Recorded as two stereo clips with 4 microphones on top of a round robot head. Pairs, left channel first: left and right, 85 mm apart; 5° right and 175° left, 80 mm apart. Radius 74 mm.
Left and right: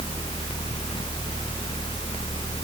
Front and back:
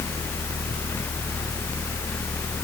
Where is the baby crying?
No baby crying in this recording.